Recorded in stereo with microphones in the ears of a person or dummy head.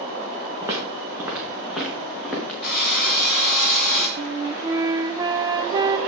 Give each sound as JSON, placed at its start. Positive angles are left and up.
{"t": 0.6, "sound": "footsteps", "side_deg": -15, "distance_m": 4.0}
{"t": 2.6, "sound": "a drill", "side_deg": 0, "distance_m": 8.5}
{"t": 4.2, "sound": "a flute", "side_deg": -20, "distance_m": 0.6}